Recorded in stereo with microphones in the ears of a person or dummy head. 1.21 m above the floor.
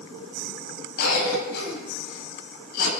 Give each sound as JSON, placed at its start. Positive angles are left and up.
{"t": 1.0, "sound": "a cough", "side_deg": 60, "distance_m": 7.5}